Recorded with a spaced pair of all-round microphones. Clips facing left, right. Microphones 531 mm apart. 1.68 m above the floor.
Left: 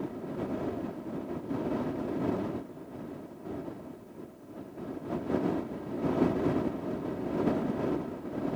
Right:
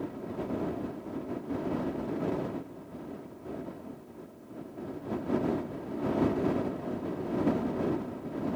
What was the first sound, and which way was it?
Only background noise.